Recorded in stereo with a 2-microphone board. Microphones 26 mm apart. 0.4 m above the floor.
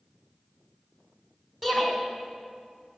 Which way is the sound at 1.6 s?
15° right (ahead or behind).